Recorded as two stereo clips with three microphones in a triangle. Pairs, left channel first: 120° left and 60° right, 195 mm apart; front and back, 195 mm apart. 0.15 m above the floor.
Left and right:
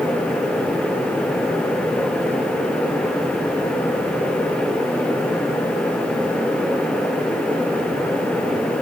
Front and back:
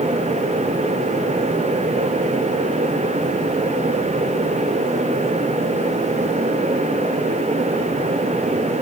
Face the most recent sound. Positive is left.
No sound to turn to.